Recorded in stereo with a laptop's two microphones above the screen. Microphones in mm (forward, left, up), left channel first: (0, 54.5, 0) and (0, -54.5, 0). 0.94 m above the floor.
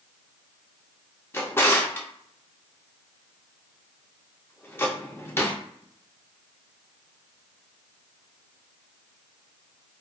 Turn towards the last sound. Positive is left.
turn(degrees=20)  # may be behind; listen again after turning